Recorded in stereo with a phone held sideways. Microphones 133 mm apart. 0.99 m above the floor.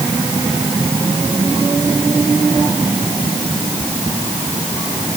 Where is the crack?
I don't hear a crack.